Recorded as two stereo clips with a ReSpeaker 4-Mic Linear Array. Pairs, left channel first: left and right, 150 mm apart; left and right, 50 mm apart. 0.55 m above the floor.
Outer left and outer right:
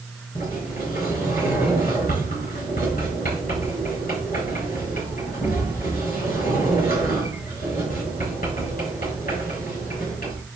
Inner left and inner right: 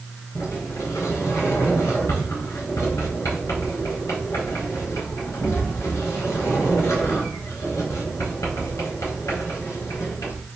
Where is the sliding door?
85° left, 4.5 m.